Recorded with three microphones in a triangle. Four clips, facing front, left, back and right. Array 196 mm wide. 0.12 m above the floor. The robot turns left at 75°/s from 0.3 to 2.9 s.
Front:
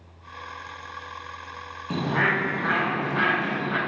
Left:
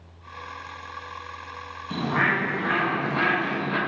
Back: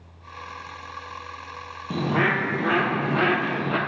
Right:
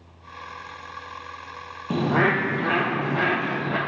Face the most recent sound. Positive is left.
turn(degrees=-160)